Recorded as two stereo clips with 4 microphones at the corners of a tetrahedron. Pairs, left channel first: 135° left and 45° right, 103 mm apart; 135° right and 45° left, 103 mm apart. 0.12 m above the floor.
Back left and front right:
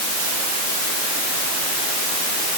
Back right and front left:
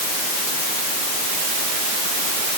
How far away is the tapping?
I don't hear tapping.